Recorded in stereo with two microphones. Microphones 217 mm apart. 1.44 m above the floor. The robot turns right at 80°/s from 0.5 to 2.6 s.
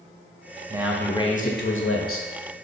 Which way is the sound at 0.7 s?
20° right.